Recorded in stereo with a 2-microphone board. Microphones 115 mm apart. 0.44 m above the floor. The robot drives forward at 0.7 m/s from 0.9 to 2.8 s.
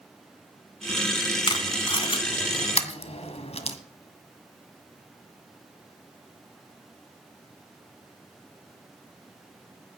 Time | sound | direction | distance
1.5 | tape being pulled | 40° left (ahead or behind) | 2 m